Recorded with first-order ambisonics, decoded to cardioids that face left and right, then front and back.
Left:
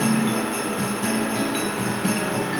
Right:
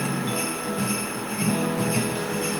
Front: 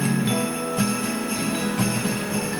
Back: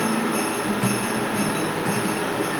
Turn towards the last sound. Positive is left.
No sound to turn to.